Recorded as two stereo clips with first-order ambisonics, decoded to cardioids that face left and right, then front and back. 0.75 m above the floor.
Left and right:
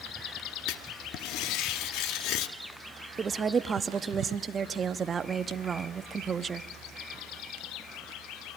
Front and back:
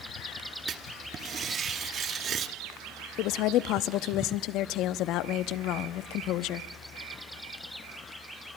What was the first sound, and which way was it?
Writing, 120° left.